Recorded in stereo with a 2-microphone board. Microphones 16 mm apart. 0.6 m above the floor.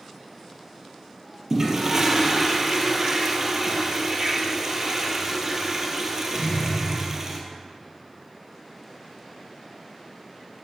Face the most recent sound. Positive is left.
turn(degrees=-35)  # may be behind; listen again after turning